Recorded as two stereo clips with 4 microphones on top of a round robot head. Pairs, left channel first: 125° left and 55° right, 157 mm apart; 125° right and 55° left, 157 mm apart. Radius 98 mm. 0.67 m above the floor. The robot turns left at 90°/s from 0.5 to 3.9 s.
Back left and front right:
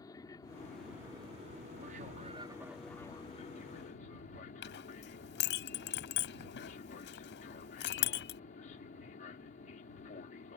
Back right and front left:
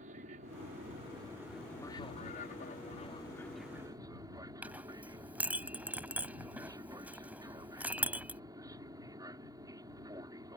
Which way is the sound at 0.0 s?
60° left.